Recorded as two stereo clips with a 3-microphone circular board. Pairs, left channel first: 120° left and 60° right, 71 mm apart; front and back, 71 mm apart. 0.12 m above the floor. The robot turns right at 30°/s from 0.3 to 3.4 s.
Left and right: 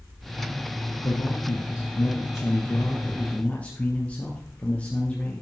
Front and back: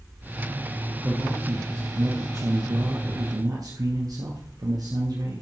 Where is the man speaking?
120° left, 2.5 m; by 5.4 s 170° right, 2.5 m.